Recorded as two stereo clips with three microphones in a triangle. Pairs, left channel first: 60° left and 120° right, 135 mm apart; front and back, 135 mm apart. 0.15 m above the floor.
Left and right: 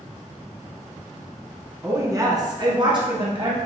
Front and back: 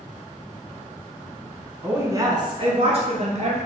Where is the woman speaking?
135° right, 1.0 m; by 3.6 s 165° right, 2.0 m.